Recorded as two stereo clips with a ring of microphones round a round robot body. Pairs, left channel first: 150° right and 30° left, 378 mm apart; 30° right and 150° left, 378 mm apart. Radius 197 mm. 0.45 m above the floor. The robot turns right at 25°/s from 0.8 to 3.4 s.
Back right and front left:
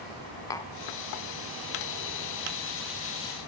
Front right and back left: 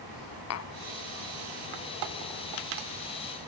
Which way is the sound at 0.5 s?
70° right.